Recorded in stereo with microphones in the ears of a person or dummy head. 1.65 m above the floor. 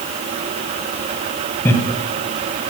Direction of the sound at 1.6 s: 10° left (ahead or behind).